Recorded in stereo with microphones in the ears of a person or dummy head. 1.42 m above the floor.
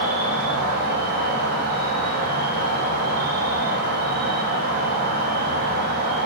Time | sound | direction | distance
0.0 | an insect | 55° right (ahead or behind) | 0.8 m